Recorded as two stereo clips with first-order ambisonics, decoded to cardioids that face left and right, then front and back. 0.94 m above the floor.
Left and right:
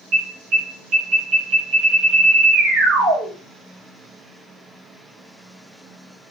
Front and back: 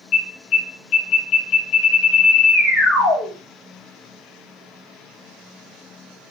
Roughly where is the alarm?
Ahead right.